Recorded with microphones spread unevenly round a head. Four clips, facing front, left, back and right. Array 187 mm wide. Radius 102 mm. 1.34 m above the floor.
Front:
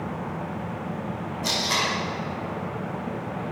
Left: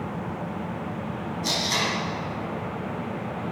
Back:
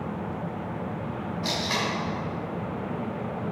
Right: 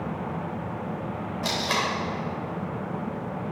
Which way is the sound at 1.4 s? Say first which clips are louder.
Right 1 dB, front 2 dB; 75° right.